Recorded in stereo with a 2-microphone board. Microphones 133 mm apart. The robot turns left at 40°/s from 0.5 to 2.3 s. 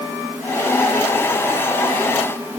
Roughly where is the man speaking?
No man speaking in this recording.